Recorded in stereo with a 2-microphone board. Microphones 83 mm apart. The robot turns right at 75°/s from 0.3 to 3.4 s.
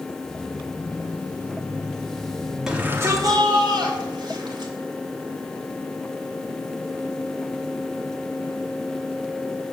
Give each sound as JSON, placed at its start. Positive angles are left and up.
{"t": 2.7, "sound": "a shout", "azimuth_deg": -170, "distance_m": 4.0}